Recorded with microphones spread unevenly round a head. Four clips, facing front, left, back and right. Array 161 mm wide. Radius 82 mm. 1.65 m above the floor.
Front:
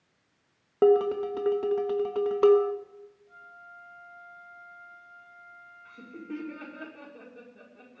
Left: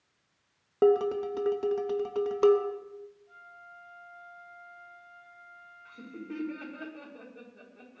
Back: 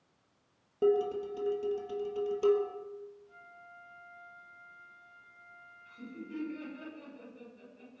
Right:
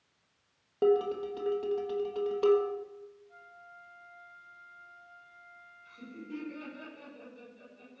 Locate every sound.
0.8 s dishes clattering: 25° left, 1.4 m
3.3 s a flute: 55° left, 9 m
5.8 s laughter: 35° left, 6 m